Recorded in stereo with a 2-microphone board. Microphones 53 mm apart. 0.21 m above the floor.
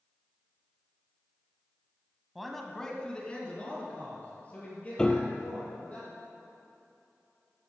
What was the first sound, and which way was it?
A man speaking, 5° right (ahead or behind).